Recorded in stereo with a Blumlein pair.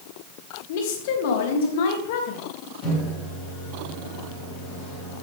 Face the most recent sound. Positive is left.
turn(degrees=35)